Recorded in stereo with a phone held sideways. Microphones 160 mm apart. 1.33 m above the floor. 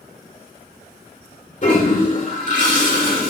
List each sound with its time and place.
1.6 s a toilet flushing: 50° left (ahead or behind), 2 m